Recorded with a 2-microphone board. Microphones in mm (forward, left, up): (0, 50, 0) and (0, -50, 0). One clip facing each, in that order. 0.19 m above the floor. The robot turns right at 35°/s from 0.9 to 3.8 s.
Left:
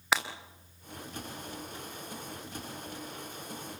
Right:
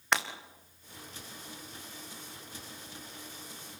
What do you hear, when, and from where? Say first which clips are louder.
0.1 s breaking glass: even; 5° left (ahead or behind), 3 m